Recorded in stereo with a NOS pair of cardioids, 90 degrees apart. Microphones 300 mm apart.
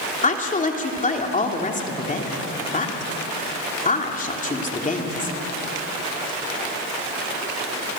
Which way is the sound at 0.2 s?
25° left.